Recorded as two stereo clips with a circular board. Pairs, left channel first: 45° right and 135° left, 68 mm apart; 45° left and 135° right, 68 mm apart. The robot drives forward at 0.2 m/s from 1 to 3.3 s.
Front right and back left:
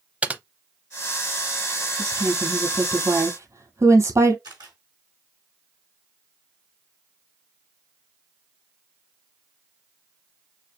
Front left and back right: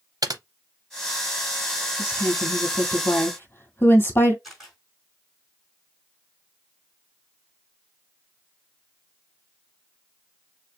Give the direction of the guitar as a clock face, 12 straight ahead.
I don't hear a guitar.